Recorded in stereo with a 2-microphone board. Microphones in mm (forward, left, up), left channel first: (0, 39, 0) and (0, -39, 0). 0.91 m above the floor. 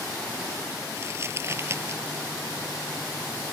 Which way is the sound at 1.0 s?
35° right (ahead or behind).